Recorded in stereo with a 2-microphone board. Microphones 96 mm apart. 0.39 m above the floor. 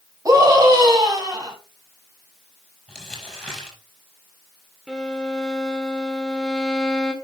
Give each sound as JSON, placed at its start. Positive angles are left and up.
{"t": 0.2, "sound": "a scream", "side_deg": -40, "distance_m": 3.0}
{"t": 2.9, "sound": "crumpling", "side_deg": 5, "distance_m": 6.0}
{"t": 4.9, "sound": "a violin", "side_deg": 5, "distance_m": 1.5}